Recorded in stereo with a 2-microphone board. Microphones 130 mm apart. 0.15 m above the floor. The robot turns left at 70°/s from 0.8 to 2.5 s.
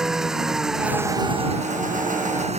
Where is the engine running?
5° right; by 2.6 s 125° right.